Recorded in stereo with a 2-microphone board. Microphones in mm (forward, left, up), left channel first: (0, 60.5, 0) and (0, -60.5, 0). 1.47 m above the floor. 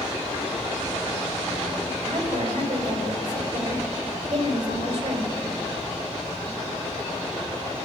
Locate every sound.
2.0 s a woman speaking: 70° right (ahead or behind), 5 m